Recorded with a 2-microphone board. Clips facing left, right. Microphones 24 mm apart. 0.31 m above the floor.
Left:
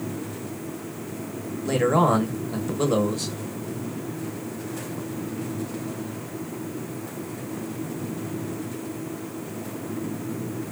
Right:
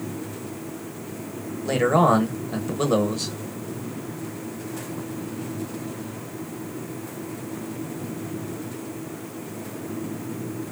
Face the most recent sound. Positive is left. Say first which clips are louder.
# right 2 dB
turn(degrees=-10)  # may be behind; listen again after turning